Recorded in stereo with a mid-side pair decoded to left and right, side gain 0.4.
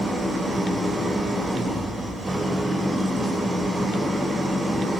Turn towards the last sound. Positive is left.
turn(degrees=-30)